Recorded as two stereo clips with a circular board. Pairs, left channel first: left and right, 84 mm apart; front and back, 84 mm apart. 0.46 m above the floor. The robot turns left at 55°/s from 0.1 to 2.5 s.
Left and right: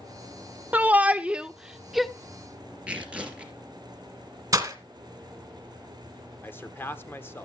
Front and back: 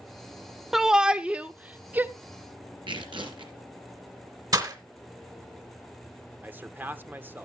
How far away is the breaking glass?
About 2 m.